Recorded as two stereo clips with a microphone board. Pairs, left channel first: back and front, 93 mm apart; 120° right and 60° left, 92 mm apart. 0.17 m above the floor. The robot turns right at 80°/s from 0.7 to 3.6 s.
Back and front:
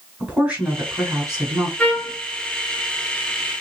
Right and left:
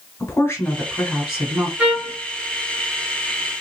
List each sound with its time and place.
0.2 s a woman speaking: 70° right, 1.9 m; by 1.7 s 10° left, 1.9 m
1.8 s a trumpet: 125° left, 1.0 m; by 2.2 s 160° left, 1.0 m